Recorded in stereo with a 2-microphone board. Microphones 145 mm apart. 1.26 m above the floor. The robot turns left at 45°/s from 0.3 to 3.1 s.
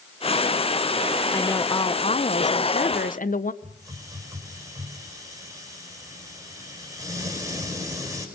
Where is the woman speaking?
165° left, 0.8 m; by 3.5 s 85° left, 0.8 m.